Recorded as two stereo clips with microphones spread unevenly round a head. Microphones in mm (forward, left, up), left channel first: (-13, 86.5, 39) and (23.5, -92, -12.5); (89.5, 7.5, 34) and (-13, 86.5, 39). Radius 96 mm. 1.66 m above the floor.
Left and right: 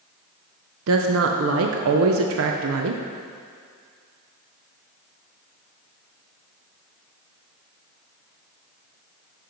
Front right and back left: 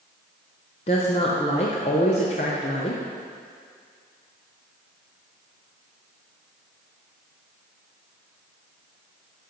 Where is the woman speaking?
95° right, 0.6 m.